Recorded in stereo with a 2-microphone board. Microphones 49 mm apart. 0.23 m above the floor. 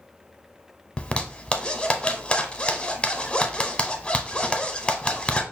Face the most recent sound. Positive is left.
turn(degrees=20)  # may be behind; listen again after turning